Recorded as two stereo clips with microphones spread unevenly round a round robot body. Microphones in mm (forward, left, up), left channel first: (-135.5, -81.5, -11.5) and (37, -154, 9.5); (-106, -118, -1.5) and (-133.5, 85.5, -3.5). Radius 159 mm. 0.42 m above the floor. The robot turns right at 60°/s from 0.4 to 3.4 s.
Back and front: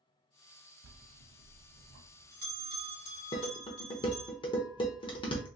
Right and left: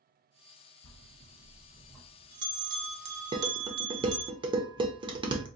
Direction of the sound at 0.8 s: 55° right.